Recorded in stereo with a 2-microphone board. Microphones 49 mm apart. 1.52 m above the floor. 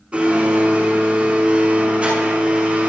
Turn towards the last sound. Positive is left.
turn(degrees=-25)  # may be behind; listen again after turning